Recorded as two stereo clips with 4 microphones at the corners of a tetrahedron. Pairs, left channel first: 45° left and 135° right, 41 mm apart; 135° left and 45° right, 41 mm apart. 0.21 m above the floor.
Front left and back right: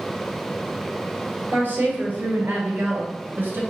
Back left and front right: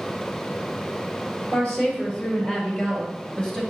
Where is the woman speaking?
170° right, 3.5 m; by 3.6 s 155° right, 2.5 m.